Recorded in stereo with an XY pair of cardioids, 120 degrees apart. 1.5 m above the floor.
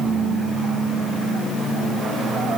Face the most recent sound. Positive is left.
No sound to turn to.